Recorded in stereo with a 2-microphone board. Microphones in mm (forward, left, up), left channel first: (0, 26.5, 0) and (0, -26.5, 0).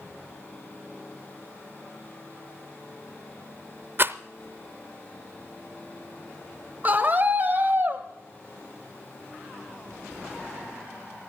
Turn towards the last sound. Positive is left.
turn(degrees=-30)  # may be behind; listen again after turning